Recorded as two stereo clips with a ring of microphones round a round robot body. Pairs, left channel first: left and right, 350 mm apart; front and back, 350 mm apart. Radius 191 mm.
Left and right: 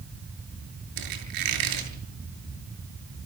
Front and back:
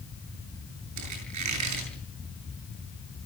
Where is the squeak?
130° right, 8 m.